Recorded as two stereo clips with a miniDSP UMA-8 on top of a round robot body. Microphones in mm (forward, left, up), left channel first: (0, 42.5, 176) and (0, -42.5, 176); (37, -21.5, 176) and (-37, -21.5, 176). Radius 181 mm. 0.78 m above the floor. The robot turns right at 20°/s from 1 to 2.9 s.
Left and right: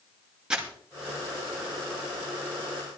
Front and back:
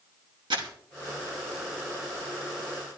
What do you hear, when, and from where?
0.5 s crumpling: 170° right, 2.5 m